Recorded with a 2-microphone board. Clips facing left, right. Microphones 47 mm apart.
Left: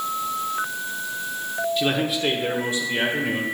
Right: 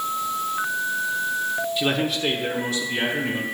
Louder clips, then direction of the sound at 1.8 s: Left 2 dB; 5° right (ahead or behind).